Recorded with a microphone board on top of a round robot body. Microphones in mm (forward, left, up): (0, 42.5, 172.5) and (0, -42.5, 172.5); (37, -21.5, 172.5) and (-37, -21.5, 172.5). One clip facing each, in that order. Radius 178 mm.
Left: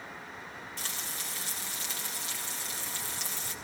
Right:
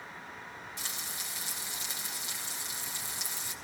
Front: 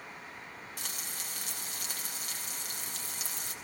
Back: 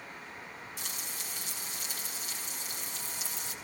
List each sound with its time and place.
0.8 s frying: 15° right, 4 m